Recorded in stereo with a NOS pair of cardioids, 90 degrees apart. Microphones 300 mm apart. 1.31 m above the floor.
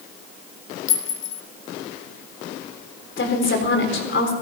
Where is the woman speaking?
40° left, 4 m.